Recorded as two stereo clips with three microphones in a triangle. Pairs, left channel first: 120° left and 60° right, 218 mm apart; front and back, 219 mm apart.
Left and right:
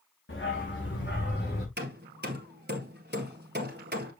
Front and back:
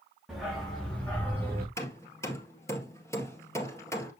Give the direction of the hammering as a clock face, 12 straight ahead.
2 o'clock.